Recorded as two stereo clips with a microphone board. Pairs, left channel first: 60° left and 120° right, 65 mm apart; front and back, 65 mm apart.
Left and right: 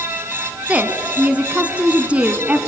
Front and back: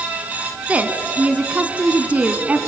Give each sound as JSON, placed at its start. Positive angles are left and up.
{"t": 0.7, "sound": "a woman speaking", "azimuth_deg": -155, "distance_m": 1.0}